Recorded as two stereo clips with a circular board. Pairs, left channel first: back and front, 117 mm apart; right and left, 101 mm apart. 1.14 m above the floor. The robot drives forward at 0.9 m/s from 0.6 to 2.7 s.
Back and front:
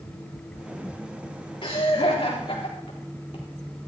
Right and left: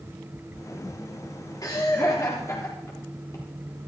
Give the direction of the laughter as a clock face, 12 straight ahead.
5 o'clock.